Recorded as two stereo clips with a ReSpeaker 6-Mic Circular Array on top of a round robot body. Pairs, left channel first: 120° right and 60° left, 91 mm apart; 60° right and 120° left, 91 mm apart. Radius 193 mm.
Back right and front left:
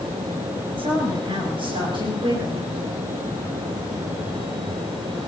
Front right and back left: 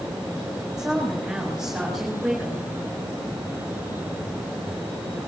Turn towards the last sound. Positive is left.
turn(degrees=35)